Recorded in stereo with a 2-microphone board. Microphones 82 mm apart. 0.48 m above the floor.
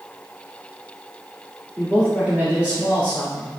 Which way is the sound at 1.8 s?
20° right (ahead or behind).